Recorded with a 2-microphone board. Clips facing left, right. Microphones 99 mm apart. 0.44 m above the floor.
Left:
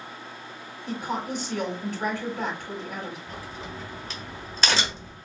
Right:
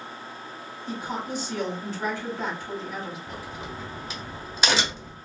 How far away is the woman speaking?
About 2.5 m.